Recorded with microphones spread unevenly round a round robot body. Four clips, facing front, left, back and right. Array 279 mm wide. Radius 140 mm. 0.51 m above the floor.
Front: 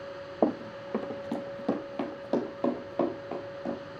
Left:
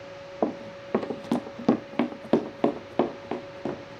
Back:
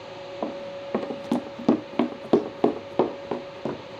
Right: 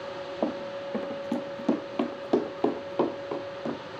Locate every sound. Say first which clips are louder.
0.4 s running footsteps: left 2 dB, front 4 dB; 40° left, 0.6 m; by 4.0 s 165° left, 3.5 m